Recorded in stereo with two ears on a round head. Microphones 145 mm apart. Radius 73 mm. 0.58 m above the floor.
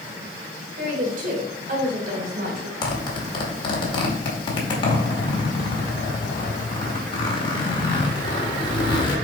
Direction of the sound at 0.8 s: 60° right (ahead or behind).